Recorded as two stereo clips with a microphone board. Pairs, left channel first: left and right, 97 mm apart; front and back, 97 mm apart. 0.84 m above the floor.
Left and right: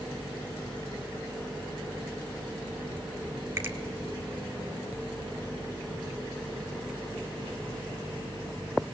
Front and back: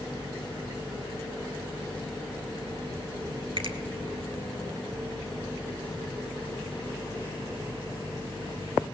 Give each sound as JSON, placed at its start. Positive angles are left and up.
{"t": 3.6, "sound": "a finger snap", "azimuth_deg": -150, "distance_m": 1.6}